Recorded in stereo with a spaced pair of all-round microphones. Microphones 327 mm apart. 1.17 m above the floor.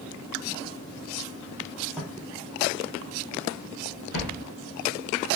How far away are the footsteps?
About 1.4 m.